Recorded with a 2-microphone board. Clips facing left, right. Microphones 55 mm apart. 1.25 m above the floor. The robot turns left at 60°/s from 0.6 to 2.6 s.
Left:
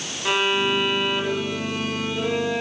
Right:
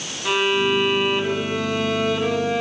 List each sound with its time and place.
0.2 s a violin: 10° left, 1.3 m; by 2.6 s 110° right, 1.3 m